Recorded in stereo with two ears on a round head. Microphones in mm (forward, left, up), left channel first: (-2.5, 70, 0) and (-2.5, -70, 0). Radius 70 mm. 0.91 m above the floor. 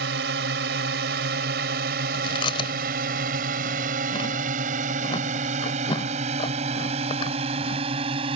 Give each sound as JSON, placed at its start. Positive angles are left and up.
{"t": 0.0, "sound": "a drone", "side_deg": -80}
{"t": 2.1, "sound": "chewing", "side_deg": 35}